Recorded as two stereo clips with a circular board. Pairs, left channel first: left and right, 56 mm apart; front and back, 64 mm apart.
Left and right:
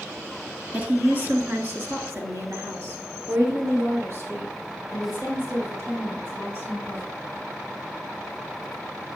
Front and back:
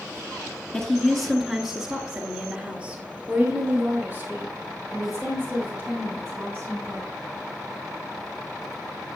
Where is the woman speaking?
60° right, 1.9 m; by 7.1 s 130° right, 6.5 m.